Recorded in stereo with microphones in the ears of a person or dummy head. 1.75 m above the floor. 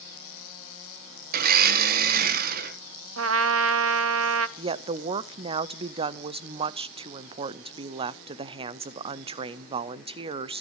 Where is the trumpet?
85° right, 0.8 m.